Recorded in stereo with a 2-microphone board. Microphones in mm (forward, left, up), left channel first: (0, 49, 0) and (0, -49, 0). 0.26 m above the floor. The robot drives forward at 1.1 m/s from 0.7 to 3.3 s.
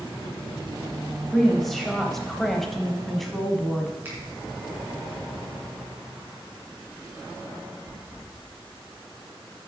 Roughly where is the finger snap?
Right.